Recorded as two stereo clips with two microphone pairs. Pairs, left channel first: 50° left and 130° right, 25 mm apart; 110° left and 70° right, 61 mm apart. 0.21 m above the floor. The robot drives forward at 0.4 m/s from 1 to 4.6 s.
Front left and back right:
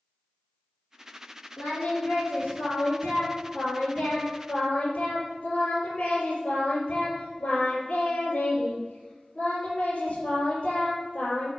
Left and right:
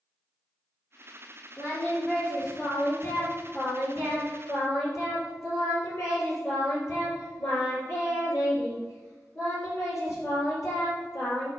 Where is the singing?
60° left, 4 m; by 11.5 s 80° left, 3.5 m.